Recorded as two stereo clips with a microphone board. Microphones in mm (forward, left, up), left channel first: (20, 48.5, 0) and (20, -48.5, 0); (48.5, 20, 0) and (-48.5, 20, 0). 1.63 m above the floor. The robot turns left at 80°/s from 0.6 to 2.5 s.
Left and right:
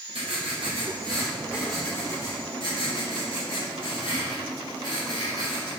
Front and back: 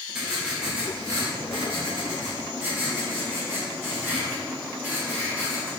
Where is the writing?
95° right, 3 m; by 5.7 s 110° left, 3 m.